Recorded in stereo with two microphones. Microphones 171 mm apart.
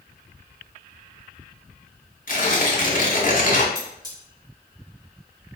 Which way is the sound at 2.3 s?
55° left (ahead or behind).